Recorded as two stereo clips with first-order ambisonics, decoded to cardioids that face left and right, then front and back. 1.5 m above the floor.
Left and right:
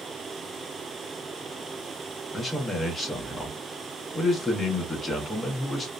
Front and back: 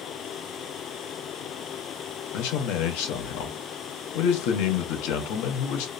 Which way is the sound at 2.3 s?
5° left.